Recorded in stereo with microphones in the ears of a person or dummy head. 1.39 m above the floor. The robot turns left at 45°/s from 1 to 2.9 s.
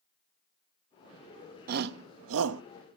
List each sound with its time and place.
1.7 s a shout: 50° right (ahead or behind), 0.8 m; by 2.6 s 85° right, 0.8 m